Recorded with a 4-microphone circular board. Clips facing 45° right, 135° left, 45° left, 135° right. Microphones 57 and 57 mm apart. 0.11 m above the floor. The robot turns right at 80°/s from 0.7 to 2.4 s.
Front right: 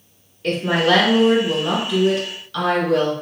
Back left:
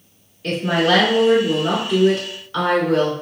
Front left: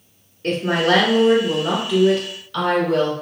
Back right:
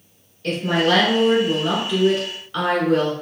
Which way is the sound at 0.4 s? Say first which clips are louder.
Even, front left 1 dB; 40° left.